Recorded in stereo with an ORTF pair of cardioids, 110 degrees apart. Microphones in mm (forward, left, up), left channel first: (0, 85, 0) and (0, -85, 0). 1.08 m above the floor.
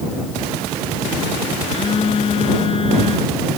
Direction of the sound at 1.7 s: 30° left.